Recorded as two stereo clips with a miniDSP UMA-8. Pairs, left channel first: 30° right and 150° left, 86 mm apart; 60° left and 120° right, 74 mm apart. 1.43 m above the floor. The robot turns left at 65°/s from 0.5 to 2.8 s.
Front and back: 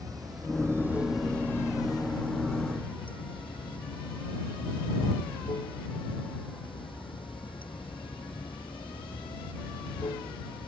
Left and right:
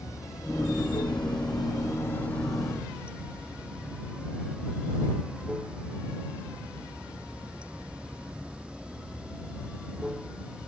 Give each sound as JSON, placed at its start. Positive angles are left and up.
{"t": 0.0, "sound": "running water", "azimuth_deg": 105}